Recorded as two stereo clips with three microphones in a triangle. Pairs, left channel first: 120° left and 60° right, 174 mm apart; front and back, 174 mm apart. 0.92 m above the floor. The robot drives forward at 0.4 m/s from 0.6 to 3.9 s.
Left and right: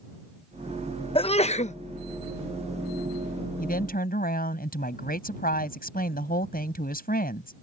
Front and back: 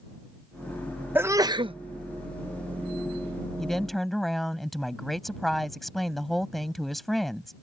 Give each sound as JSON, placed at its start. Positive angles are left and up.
{"t": 1.1, "sound": "a sneeze", "azimuth_deg": 110}
{"t": 3.6, "sound": "a woman speaking", "azimuth_deg": 90}